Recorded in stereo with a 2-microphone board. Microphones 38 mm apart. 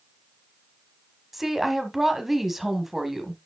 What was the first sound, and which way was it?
A woman speaking, 5° right (ahead or behind).